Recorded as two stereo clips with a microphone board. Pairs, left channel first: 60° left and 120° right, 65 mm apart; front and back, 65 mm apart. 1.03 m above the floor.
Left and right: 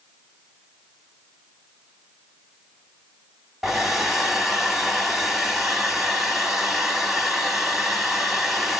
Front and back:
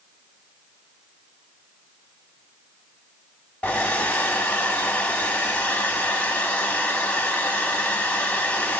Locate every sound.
3.6 s a hair dryer: 35° right, 0.9 m